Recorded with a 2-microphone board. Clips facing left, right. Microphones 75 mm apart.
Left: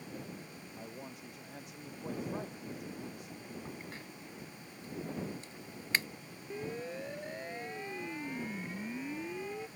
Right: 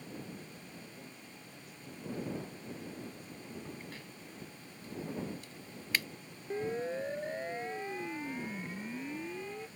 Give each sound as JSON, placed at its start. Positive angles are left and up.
{"t": 0.8, "sound": "a man speaking", "side_deg": 80}
{"t": 3.6, "sound": "a crack", "side_deg": 30}
{"t": 6.5, "sound": "a siren", "side_deg": -40}